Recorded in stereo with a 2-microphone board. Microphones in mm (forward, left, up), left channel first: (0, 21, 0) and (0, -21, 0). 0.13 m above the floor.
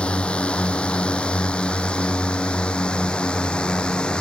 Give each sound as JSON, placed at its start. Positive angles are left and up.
{"t": 0.0, "sound": "a drone", "side_deg": 30}